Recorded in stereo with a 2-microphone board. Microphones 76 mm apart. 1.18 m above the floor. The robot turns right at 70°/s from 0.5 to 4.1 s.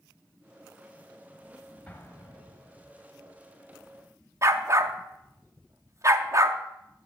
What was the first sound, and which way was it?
An explosion, 20° left (ahead or behind).